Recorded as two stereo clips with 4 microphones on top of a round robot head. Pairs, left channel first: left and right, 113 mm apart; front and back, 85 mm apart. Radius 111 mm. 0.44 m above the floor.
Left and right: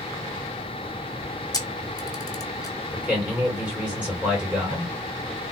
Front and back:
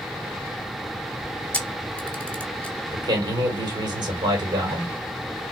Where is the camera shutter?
65° left, 1.3 m.